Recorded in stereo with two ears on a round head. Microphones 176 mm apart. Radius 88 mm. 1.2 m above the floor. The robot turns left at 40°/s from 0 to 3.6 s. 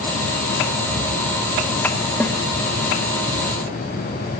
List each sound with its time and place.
2.2 s a snare drum: 10° left (ahead or behind), 1.8 m; by 2.4 s 15° left (ahead or behind), 1.8 m